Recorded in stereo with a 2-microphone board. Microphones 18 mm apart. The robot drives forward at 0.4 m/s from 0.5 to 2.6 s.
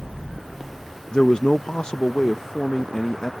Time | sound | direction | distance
1.1 | a man speaking | 55° left (ahead or behind) | ?